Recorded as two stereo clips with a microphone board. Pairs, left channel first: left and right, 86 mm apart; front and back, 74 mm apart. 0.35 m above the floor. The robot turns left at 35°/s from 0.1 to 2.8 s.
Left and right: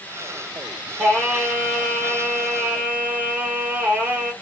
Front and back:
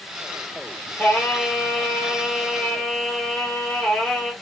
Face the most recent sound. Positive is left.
turn(degrees=-60)